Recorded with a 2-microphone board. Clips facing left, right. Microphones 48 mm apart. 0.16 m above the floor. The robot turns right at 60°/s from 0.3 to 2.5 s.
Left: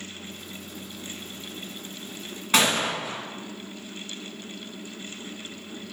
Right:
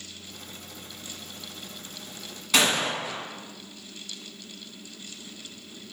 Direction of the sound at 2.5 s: 30° left (ahead or behind).